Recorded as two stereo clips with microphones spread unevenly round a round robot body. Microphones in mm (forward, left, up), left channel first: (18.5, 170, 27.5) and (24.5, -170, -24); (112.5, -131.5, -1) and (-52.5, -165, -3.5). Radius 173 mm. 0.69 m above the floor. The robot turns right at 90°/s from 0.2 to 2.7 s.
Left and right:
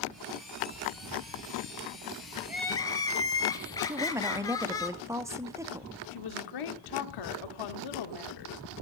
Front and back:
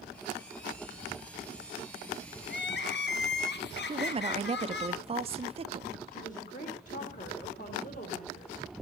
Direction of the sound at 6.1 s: 70° left.